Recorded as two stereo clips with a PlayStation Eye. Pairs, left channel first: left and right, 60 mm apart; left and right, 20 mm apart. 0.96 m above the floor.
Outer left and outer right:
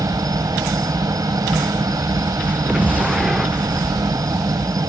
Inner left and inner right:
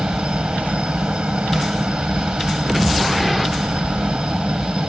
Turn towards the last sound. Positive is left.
turn(degrees=-75)  # may be behind; listen again after turning